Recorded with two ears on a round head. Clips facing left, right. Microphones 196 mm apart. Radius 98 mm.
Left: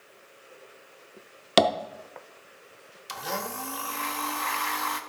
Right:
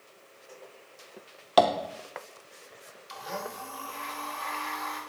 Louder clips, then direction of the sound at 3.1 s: Left 3 dB; 65° left (ahead or behind).